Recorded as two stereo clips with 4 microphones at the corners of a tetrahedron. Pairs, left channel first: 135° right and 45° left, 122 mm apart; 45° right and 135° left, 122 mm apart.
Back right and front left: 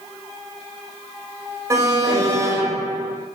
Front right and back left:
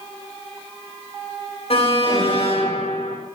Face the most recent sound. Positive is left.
turn(degrees=-15)